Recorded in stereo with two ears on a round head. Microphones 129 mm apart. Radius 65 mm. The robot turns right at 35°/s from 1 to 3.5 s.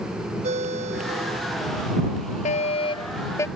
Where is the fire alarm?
125° left; by 3.5 s 160° left.